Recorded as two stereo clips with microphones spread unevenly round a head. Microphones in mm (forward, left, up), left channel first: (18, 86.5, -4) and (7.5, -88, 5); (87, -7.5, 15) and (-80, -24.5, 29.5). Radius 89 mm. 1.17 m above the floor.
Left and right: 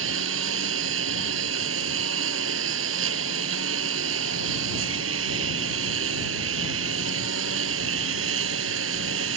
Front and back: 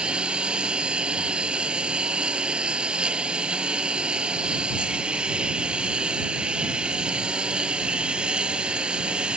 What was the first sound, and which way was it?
A lawn mower, 90° right.